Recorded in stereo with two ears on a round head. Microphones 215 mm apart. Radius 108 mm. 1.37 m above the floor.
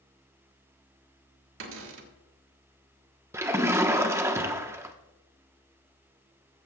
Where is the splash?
10° right (ahead or behind), 1.0 m.